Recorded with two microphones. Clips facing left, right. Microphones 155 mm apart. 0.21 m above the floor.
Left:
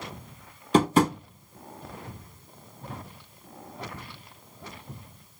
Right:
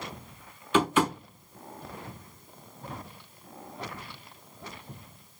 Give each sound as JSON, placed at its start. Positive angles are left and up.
{"t": 0.7, "sound": "tapping", "side_deg": 35, "distance_m": 0.8}